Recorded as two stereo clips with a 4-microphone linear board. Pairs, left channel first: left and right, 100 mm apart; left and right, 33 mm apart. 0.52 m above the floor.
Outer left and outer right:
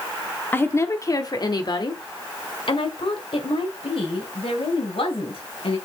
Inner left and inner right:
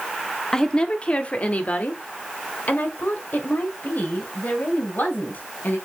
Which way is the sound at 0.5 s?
20° left (ahead or behind).